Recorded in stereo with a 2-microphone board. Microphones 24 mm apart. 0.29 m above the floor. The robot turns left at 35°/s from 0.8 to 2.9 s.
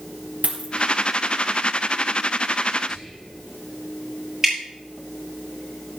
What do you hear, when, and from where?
0.4 s a dropped coin: 85° right, 3 m
2.9 s whispering: 25° right (ahead or behind), 6 m
4.4 s dripping: 15° right (ahead or behind), 6.5 m